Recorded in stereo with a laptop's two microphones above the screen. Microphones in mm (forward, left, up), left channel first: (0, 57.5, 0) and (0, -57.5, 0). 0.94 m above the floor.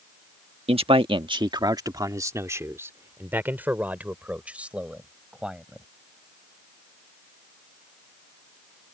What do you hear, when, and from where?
0.7 s a man speaking: 65° right (ahead or behind); by 5.8 s 10° right (ahead or behind)